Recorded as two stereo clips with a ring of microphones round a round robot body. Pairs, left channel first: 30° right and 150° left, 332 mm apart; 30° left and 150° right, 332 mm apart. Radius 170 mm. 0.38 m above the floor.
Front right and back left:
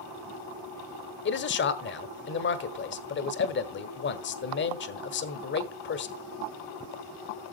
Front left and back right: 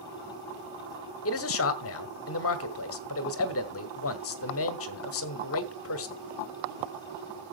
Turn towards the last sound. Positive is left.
turn(degrees=10)